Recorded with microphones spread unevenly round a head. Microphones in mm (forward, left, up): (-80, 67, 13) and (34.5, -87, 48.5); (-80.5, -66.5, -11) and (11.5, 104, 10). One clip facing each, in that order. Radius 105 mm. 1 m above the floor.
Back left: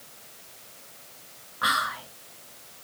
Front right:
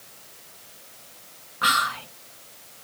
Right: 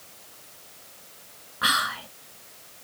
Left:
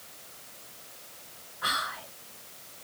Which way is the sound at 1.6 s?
110° right.